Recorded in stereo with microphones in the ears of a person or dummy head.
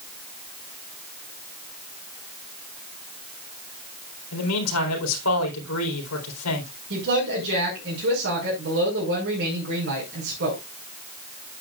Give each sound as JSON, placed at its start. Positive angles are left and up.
{"t": 4.3, "sound": "a man speaking", "side_deg": 85, "distance_m": 4.0}
{"t": 6.9, "sound": "a woman speaking", "side_deg": -70, "distance_m": 5.5}